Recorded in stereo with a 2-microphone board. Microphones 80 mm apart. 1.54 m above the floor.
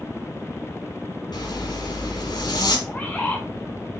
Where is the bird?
20° left (ahead or behind), 2.0 m.